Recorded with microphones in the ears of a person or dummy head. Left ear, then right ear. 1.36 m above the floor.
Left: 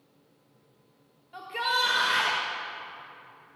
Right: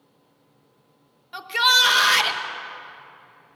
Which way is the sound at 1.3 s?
50° right (ahead or behind).